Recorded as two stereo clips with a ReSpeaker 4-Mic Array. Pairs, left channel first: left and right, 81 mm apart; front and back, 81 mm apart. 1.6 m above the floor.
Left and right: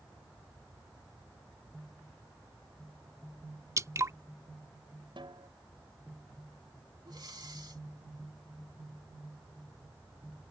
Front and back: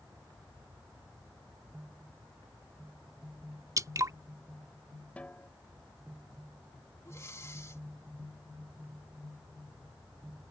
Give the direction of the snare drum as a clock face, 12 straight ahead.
2 o'clock.